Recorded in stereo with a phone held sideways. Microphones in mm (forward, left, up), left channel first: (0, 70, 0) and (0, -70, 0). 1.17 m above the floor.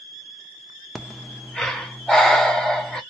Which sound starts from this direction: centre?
Breathing, at 0.9 s.